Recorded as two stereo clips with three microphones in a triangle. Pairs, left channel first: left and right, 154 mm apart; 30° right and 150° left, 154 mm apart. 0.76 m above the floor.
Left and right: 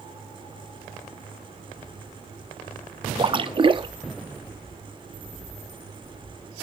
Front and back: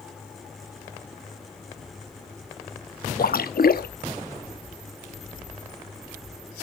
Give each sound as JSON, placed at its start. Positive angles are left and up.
{"t": 3.2, "sound": "a splash", "azimuth_deg": -30, "distance_m": 0.6}